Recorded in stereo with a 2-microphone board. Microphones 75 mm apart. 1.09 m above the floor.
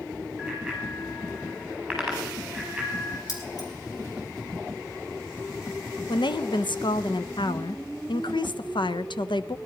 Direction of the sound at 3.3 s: 50° left (ahead or behind).